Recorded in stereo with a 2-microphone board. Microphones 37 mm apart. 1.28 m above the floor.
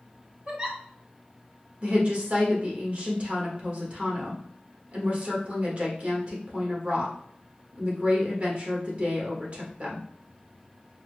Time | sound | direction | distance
0.5 | a giggle | 25° right (ahead or behind) | 0.7 m
1.8 | a woman speaking | 40° right (ahead or behind) | 1.2 m